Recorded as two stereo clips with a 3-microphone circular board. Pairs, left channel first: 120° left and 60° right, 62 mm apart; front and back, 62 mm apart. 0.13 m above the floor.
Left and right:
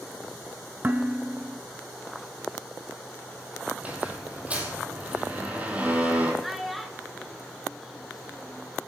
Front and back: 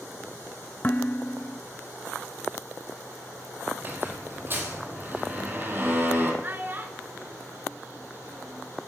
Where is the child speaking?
150° right, 1.1 m.